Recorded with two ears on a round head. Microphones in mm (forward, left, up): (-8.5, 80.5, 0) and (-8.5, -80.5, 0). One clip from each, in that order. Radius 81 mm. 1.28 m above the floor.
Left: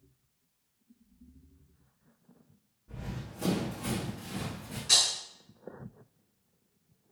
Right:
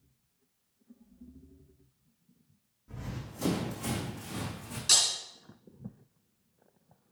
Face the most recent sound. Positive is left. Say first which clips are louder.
# left 1 dB
turn(degrees=-75)  # may be behind; listen again after turning